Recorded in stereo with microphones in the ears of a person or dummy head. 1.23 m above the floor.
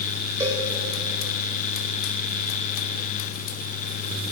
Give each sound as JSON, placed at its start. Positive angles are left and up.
{"t": 0.4, "sound": "a cowbell", "side_deg": -20, "distance_m": 3.0}